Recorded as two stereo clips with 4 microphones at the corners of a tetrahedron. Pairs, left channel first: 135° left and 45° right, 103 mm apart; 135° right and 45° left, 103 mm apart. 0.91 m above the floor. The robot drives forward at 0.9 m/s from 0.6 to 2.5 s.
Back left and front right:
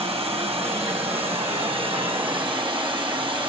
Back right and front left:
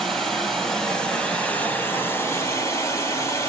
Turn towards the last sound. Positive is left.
turn(degrees=-80)